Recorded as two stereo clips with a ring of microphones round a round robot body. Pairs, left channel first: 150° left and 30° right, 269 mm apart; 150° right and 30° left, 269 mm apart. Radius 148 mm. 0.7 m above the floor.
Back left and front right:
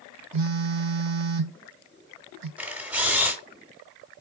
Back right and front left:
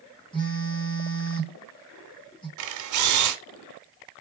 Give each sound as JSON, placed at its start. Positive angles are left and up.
{"t": 0.3, "sound": "a phone buzzing", "azimuth_deg": -75, "distance_m": 2.0}
{"t": 2.6, "sound": "a camera shutter", "azimuth_deg": 55, "distance_m": 0.9}